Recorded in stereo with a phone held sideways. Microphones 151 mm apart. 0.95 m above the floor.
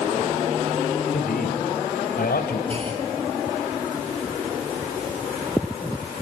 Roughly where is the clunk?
Right.